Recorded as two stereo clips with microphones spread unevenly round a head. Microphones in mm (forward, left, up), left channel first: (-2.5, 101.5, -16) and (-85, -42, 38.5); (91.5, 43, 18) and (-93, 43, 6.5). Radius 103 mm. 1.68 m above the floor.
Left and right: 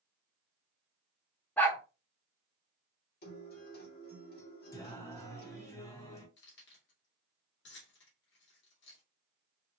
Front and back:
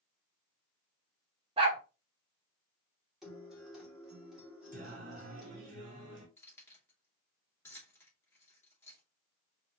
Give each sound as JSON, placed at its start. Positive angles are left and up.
{"t": 1.6, "sound": "a dog barking", "azimuth_deg": 170, "distance_m": 1.4}
{"t": 3.2, "sound": "a guitar", "azimuth_deg": 90, "distance_m": 2.5}
{"t": 4.7, "sound": "singing", "azimuth_deg": 140, "distance_m": 2.5}
{"t": 6.4, "sound": "keys jangling", "azimuth_deg": 75, "distance_m": 2.5}